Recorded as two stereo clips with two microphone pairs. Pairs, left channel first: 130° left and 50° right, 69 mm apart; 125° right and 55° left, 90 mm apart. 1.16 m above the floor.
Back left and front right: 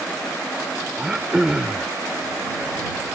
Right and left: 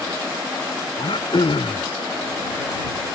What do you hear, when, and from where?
1.0 s throat clearing: 130° right